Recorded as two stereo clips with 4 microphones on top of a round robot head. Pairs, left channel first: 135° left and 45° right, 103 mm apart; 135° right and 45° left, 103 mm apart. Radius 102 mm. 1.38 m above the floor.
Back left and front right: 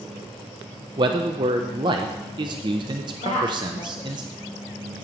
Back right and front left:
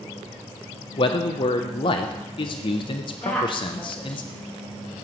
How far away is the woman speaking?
About 2.5 m.